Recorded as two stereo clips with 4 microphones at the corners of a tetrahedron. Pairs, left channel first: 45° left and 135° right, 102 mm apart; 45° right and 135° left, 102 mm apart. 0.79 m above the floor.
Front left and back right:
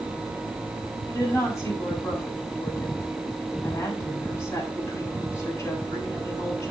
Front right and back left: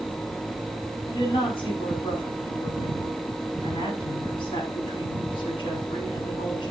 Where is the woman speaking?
15° right, 7 m.